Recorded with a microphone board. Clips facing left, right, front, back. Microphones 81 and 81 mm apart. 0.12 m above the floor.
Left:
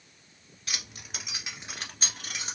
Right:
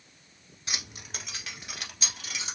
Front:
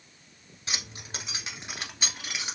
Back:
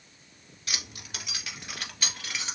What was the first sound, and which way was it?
Keys jangling, 35° right.